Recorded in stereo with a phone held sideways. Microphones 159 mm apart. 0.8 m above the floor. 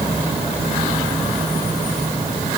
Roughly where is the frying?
I don't hear frying.